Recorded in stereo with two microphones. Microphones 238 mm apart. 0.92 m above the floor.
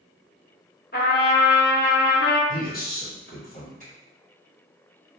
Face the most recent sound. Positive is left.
turn(degrees=-35)  # may be behind; listen again after turning